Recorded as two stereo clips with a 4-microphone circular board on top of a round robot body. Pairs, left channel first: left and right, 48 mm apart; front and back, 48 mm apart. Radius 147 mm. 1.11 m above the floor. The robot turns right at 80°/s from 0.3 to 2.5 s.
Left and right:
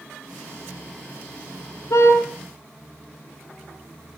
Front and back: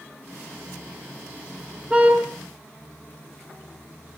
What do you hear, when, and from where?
1.9 s a car horn: 110° left, 6 m; by 2.2 s 135° left, 6 m